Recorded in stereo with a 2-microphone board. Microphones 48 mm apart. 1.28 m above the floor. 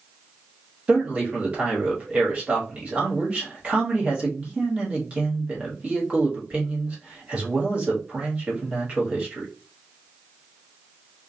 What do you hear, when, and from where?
0.9 s a man speaking: 30° right (ahead or behind), 1.2 m